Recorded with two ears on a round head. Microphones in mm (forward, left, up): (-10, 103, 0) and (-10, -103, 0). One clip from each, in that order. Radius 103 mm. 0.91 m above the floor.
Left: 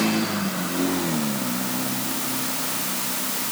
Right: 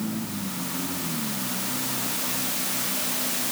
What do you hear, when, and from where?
Only background noise.